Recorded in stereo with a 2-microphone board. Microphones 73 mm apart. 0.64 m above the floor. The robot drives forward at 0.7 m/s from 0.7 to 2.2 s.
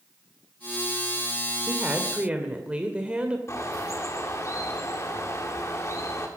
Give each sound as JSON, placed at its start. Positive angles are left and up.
{"t": 1.7, "sound": "a woman speaking", "side_deg": -20, "distance_m": 1.4}
{"t": 3.5, "sound": "a bird", "side_deg": 40, "distance_m": 1.8}